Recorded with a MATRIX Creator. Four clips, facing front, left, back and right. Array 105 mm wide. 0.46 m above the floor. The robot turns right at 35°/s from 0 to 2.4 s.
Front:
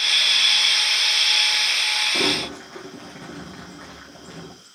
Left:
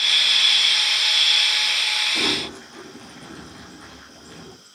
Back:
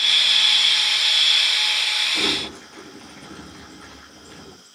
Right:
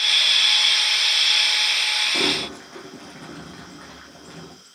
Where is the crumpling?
50° right, 9.5 m; by 4.5 s 40° right, 9.5 m.